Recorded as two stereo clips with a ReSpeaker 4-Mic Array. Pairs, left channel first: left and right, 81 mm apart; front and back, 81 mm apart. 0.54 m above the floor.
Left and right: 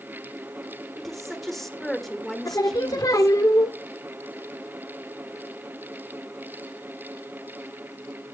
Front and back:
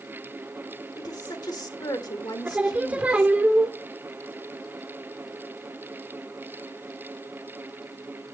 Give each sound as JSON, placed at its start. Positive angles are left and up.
{"t": 1.0, "sound": "a woman speaking", "azimuth_deg": 5, "distance_m": 1.6}
{"t": 2.5, "sound": "singing", "azimuth_deg": 110, "distance_m": 1.0}